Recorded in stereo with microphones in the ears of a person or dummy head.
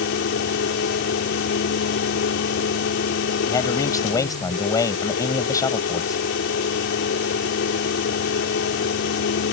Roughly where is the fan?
Left.